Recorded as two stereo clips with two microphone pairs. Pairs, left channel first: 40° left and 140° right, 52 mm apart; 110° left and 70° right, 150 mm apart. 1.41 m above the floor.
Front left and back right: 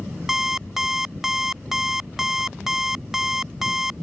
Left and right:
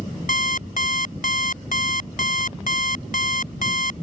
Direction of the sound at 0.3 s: 135° left.